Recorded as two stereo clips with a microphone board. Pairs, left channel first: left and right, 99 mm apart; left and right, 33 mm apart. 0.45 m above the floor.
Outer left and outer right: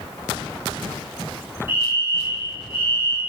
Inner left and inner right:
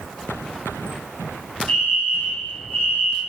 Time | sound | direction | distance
1.7 | a fire alarm | 60° left (ahead or behind) | 3.5 m